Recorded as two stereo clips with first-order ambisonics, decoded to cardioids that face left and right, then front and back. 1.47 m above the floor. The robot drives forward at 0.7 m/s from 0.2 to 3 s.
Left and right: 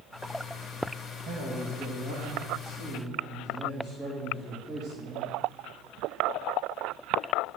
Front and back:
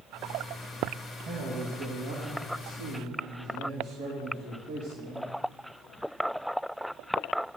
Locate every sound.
1.2 s a man speaking: 135° right, 2.5 m; by 5.3 s 150° right, 3 m